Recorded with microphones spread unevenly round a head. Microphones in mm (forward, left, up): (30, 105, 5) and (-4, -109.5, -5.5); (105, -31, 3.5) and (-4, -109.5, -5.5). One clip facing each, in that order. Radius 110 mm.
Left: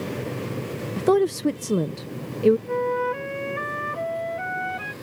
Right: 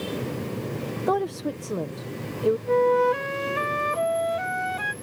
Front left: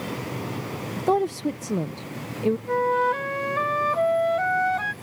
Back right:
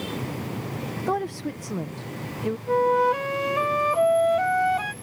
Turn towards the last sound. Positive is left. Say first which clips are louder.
# right 5 dB, back right 7 dB
turn(degrees=-70)